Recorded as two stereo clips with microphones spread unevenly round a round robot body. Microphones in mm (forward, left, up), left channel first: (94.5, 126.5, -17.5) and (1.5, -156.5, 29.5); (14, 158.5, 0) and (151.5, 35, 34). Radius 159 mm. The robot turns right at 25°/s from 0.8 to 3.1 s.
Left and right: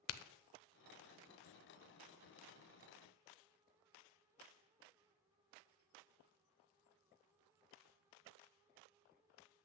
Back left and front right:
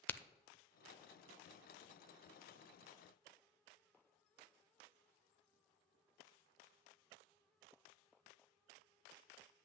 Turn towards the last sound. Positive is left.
turn(degrees=125)